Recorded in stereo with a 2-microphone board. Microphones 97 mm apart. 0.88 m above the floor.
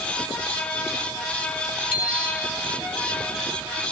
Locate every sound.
1.9 s a bicycle bell: 15° right (ahead or behind), 4.5 m